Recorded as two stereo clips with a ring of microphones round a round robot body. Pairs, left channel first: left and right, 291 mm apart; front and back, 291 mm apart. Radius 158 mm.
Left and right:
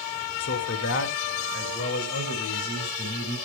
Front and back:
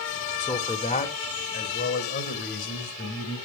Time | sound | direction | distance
0.4 | a man speaking | 70° left | 1.6 m